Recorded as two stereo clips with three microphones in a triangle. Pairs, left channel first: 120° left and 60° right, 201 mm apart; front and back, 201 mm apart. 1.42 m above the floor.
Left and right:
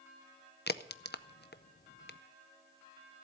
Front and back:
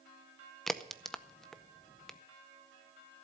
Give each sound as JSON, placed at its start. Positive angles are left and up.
{"t": 0.7, "sound": "a crack", "azimuth_deg": 85, "distance_m": 0.6}